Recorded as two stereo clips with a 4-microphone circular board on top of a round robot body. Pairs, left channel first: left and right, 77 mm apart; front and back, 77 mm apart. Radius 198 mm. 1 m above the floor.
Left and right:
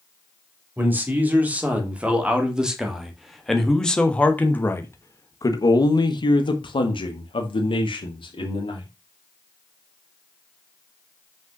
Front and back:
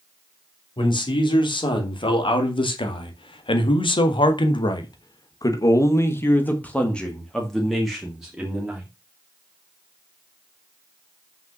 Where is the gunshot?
I don't hear a gunshot.